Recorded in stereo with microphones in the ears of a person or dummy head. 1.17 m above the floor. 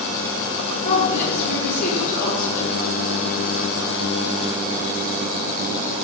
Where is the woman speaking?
40° left (ahead or behind), 1.7 m.